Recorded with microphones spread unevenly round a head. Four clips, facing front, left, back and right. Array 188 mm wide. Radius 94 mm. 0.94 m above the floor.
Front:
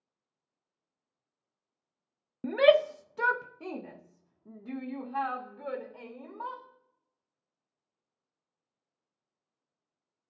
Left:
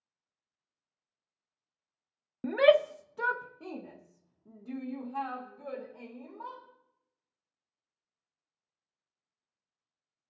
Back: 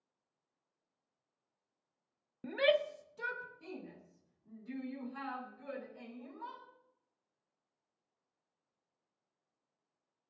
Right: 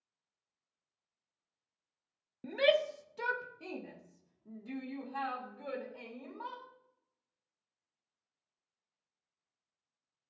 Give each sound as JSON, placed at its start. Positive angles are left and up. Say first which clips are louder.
{"t": 2.4, "sound": "a shout", "louder": "left 7 dB, front 9 dB", "azimuth_deg": 50, "distance_m": 0.5}